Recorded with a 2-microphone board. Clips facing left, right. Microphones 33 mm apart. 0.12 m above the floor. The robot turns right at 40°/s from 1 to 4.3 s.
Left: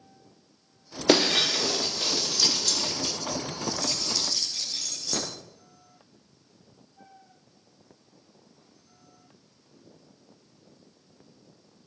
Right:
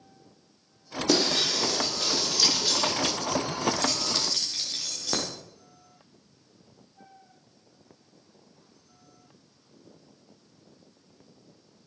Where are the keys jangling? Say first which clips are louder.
Right 2 dB; 55° right (ahead or behind), 4.5 m; by 5.3 s 40° right (ahead or behind), 4.5 m.